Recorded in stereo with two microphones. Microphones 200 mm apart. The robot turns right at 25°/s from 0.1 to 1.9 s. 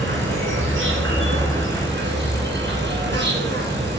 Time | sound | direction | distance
0.0 | an insect | 110° right | 3 m